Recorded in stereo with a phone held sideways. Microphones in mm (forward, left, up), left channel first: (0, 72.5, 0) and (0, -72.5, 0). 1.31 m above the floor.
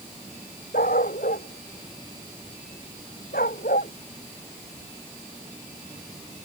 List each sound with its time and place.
0.7 s a dog barking: 85° left